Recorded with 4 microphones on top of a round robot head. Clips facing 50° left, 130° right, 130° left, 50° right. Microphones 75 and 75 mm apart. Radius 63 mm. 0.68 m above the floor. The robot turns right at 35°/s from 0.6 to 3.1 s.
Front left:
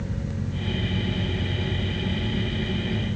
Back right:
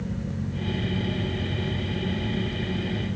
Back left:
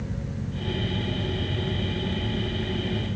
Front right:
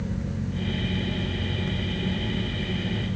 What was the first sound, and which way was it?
Only background noise.